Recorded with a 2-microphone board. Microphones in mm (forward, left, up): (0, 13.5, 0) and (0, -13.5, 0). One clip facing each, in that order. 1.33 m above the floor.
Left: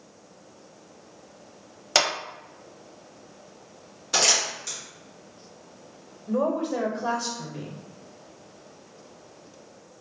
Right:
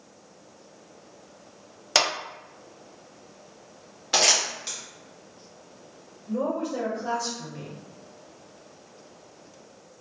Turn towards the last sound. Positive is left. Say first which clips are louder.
# left 3 dB
turn(degrees=65)  # may be behind; listen again after turning